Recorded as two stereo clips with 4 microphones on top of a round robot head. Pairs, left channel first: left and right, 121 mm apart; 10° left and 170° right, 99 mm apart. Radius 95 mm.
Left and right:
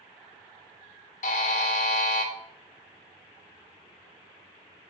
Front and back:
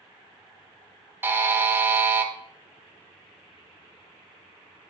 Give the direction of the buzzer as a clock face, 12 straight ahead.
8 o'clock.